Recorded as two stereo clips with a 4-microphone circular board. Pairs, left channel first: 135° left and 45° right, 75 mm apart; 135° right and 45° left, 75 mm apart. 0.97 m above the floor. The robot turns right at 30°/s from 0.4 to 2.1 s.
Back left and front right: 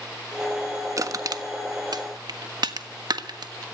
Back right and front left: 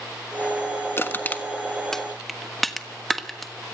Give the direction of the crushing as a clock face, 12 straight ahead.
3 o'clock.